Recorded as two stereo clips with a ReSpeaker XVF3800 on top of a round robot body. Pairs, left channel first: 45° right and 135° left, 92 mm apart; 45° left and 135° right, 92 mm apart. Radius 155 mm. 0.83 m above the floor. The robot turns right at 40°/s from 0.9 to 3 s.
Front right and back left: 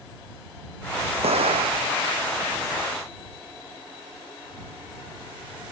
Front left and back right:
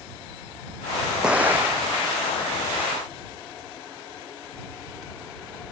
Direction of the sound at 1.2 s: 140° left.